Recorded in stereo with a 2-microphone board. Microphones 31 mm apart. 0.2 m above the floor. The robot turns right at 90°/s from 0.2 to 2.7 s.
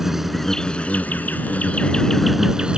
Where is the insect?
10° right; by 2.8 s 145° right.